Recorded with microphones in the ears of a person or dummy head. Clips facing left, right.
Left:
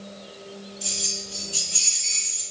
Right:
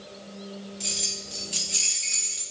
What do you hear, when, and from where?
0.8 s keys jangling: 15° right (ahead or behind), 0.6 m